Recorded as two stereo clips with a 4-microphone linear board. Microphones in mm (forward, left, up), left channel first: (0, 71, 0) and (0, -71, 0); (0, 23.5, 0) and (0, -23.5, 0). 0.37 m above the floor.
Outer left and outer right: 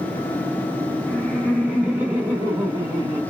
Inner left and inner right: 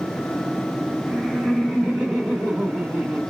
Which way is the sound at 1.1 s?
5° left (ahead or behind).